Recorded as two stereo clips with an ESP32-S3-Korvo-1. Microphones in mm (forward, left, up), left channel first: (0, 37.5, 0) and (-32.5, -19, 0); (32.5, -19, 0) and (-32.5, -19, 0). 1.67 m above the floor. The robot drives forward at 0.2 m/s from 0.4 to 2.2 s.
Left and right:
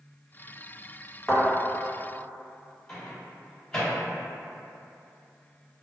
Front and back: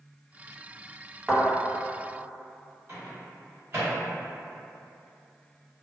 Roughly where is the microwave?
Behind left.